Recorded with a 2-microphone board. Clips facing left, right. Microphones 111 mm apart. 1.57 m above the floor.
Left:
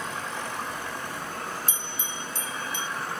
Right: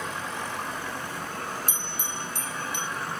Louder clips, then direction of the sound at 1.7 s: Right 1 dB; 60° right (ahead or behind).